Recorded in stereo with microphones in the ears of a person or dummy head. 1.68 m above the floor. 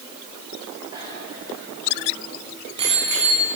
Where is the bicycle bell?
25° right (ahead or behind), 7 m; by 3.5 s 40° right (ahead or behind), 5 m.